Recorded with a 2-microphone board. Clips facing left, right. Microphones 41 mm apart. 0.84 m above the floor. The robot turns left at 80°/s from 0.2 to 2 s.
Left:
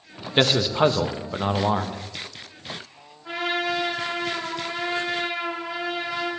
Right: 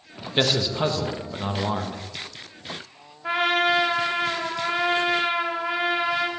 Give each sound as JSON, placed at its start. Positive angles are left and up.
{"t": 0.4, "sound": "a man speaking", "side_deg": 15, "distance_m": 1.0}
{"t": 3.2, "sound": "a trumpet", "side_deg": -60, "distance_m": 4.5}